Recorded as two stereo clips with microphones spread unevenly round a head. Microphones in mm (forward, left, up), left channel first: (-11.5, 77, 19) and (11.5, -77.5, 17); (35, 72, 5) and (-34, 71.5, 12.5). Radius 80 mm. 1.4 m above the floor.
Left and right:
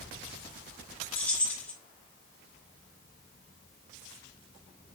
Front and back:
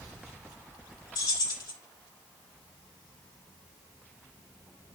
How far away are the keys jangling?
About 3 m.